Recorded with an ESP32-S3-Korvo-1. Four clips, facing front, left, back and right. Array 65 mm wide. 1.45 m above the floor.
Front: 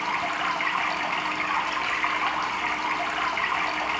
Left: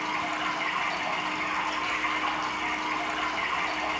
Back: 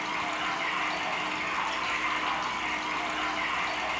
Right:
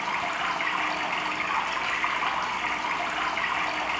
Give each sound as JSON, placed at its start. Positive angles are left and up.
{"t": 0.0, "sound": "running water", "azimuth_deg": -30, "distance_m": 1.1}